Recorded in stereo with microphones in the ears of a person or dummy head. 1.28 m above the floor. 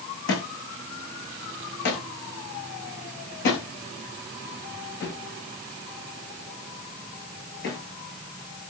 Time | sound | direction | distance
0.3 | a thud | 55° left (ahead or behind) | 9 m